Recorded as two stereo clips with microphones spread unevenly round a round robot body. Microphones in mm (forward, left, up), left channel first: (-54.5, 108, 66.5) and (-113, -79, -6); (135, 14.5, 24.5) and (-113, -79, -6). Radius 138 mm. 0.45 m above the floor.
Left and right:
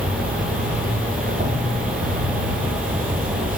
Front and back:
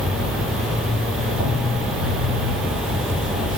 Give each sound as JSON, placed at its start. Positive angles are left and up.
{"t": 0.0, "sound": "an insect", "azimuth_deg": -125, "distance_m": 1.3}